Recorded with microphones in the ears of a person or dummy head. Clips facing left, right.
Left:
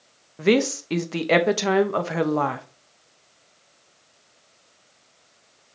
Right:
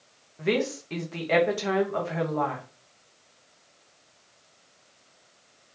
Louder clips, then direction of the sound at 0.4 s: Left 7 dB; 65° left (ahead or behind).